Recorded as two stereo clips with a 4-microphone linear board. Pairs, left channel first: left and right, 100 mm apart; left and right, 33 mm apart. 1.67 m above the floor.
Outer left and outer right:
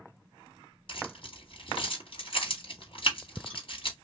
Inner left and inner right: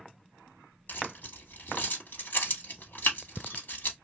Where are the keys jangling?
60° left (ahead or behind), 1.9 m.